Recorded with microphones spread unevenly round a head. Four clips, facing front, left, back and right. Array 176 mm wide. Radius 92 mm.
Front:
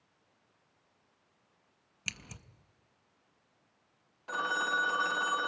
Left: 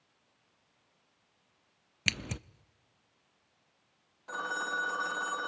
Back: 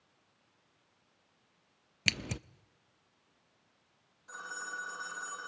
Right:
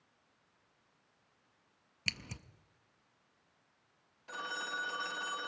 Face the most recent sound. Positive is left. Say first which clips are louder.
# left 6 dB, front 11 dB
turn(degrees=30)